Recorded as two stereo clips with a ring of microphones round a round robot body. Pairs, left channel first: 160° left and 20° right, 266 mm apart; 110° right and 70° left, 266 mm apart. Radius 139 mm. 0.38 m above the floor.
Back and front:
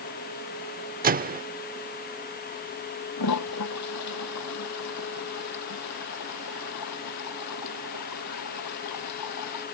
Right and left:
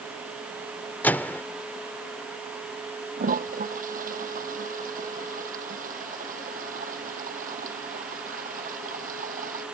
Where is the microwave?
35° right.